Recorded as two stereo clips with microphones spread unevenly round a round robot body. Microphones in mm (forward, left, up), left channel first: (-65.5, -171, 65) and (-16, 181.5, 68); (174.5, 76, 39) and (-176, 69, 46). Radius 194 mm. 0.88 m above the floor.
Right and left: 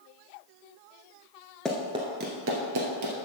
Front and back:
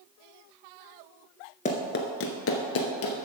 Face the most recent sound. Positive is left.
turn(degrees=45)